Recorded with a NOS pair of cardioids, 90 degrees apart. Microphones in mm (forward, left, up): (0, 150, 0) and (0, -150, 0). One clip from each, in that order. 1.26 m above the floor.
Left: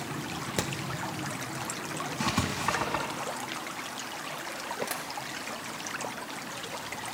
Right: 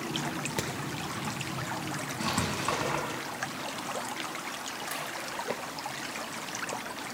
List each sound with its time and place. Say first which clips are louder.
0.6 s hammering: left 3 dB; 20° left, 0.9 m
2.2 s writing: left 1 dB; 25° left, 4 m
4.9 s tapping: even; 45° left, 3 m